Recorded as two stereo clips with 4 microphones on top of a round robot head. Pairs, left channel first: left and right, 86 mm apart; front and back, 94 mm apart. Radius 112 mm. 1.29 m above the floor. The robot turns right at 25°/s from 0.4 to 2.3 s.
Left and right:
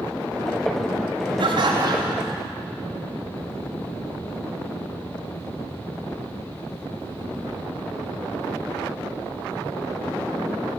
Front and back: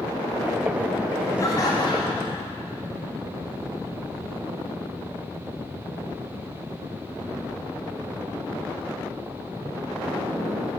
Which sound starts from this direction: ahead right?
Laughter, at 1.4 s.